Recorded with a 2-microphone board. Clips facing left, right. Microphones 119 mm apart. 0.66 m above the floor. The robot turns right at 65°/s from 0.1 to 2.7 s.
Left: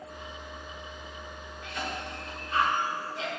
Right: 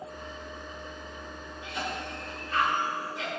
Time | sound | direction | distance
1.6 | a cough | 25° right (ahead or behind) | 2 m